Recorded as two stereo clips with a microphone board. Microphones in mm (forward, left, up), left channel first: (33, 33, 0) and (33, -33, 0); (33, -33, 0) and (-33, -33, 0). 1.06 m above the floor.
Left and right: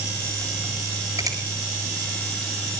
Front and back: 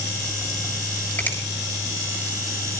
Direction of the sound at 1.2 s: 65° right.